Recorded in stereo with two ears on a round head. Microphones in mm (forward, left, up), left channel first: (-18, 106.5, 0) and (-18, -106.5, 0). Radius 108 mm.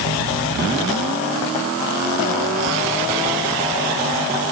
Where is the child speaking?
No child speaking in this recording.